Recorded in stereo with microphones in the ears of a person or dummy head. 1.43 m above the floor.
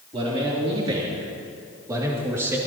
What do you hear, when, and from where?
0.1 s a man speaking: 35° right (ahead or behind), 3 m; by 2.6 s 15° right (ahead or behind), 2 m